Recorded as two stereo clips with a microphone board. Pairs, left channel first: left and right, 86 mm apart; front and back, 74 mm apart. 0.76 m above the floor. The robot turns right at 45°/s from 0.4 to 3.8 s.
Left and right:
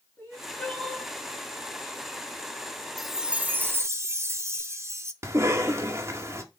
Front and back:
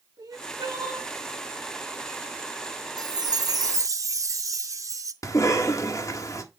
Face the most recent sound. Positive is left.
turn(degrees=-35)